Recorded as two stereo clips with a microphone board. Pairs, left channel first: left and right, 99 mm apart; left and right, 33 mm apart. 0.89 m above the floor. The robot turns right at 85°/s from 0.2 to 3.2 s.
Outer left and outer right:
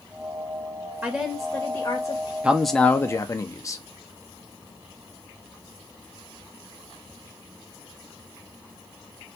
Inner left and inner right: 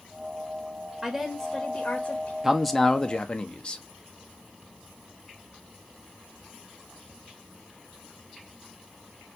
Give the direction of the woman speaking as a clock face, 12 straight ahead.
1 o'clock.